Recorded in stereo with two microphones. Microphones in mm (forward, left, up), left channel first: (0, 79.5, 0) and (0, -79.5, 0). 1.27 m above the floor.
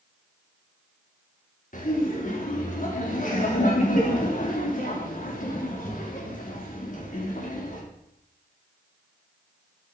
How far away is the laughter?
About 3.5 m.